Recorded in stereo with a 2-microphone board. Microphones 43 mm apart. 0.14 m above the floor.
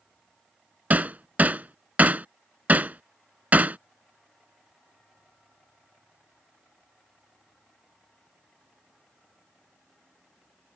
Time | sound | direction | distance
0.9 | hammering | 40° right (ahead or behind) | ?